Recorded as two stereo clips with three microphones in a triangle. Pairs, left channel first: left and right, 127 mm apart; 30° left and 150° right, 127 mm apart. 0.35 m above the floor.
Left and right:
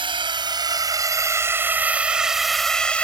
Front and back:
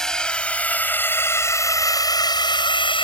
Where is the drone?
55° right; by 3.0 s 15° left.